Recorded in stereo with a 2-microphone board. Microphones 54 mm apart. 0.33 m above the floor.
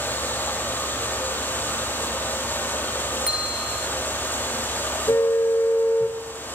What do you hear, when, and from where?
0.0 s running water: 40° left (ahead or behind), 7.5 m
3.3 s a bell: 10° right (ahead or behind), 3 m
5.1 s a car horn: 75° left (ahead or behind), 3.5 m